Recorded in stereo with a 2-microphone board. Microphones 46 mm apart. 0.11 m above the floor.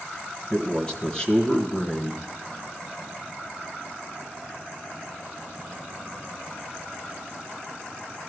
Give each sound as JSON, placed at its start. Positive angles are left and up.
{"t": 0.5, "sound": "a man speaking", "side_deg": 20, "distance_m": 1.1}